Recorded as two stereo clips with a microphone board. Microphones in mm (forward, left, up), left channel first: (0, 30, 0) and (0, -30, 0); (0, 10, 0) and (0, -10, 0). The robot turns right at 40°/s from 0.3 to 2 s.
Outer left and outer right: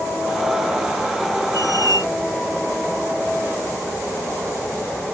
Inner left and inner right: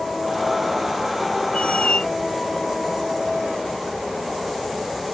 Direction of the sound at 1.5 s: 75° left (ahead or behind).